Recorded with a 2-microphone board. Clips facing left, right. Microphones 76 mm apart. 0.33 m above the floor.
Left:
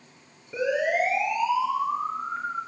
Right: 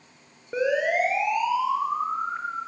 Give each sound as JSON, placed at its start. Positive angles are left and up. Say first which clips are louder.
{"t": 0.5, "sound": "a siren", "louder": "right 1 dB", "side_deg": -45, "distance_m": 7.5}